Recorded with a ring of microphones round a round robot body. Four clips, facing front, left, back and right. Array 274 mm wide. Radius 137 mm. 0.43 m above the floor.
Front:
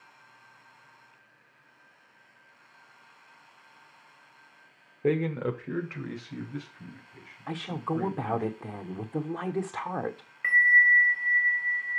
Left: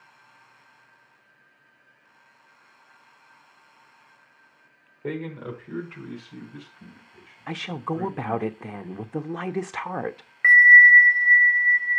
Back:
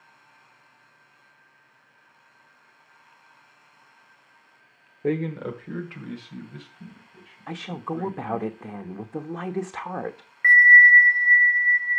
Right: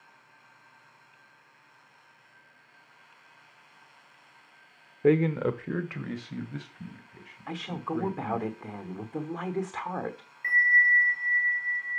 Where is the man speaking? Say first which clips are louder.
Right 9 dB, even; 80° right, 0.9 m.